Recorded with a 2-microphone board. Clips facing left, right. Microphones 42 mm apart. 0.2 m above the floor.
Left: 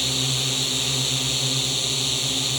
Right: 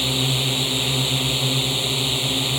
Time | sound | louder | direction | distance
0.0 | a drone | right 3 dB | 20° right (ahead or behind) | ?